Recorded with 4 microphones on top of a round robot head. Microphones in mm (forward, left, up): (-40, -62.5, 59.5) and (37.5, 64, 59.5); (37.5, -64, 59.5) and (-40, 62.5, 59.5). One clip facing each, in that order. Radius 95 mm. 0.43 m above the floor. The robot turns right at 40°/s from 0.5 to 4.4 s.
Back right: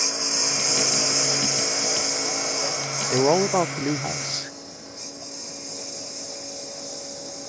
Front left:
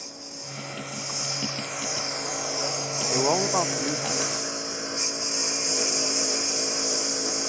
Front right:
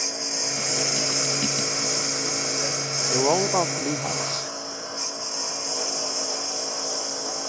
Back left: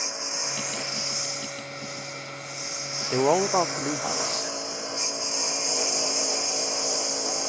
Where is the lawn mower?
120° right; by 7.5 s 40° left.